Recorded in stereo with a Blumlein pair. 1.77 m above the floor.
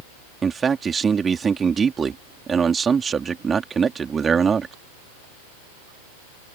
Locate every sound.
0.4 s a man speaking: 15° right